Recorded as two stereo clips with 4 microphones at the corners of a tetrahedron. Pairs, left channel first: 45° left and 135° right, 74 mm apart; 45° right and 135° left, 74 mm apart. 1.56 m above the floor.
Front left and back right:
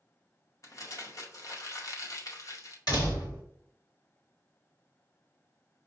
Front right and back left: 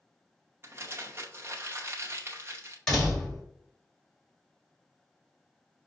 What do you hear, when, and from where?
0.6 s crumpling: 85° left, 0.7 m
2.9 s a door slam: 35° left, 1.7 m